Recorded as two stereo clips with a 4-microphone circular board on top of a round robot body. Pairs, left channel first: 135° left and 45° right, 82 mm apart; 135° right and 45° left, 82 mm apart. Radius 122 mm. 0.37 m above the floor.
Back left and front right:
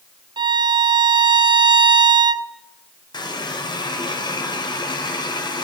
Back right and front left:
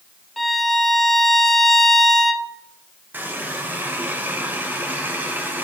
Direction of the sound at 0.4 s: 50° right.